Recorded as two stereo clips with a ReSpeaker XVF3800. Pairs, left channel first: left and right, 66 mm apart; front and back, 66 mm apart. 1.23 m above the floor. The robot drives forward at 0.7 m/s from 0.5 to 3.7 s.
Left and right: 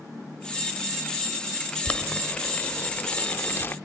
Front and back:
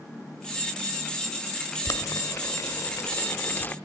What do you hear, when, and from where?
1.9 s boiling: 20° left, 2 m; by 3.8 s 45° left, 1.1 m